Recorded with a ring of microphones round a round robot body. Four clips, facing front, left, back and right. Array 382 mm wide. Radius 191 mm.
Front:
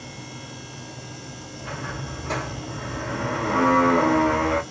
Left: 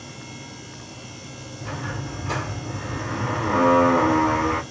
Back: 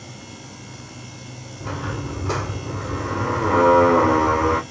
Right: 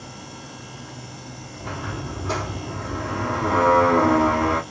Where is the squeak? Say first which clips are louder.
Right 1 dB, back 5 dB; 160° right, 2.5 m.